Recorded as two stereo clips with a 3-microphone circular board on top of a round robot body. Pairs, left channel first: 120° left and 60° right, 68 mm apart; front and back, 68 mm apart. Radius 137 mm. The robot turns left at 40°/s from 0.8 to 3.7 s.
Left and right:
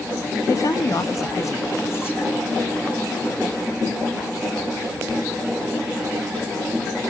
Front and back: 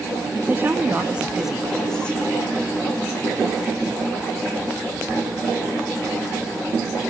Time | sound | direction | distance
0.5 | a woman speaking | 125° left | 1.4 m